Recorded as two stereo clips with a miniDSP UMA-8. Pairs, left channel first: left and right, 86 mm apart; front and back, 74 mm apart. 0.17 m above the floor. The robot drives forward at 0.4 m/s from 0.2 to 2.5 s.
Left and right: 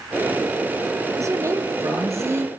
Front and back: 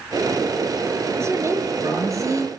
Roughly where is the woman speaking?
Behind right.